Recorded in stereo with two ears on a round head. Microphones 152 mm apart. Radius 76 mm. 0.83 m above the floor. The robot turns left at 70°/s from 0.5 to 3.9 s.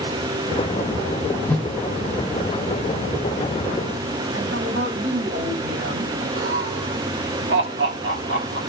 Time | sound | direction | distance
1.5 | a whoosh | 15° left (ahead or behind) | 0.8 m
4.3 | a woman speaking | 65° right (ahead or behind) | 5 m
6.4 | laughter | 70° right (ahead or behind) | 1.7 m